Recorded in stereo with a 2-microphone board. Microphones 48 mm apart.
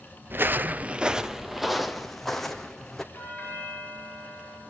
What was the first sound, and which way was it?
Footsteps, 50° right (ahead or behind).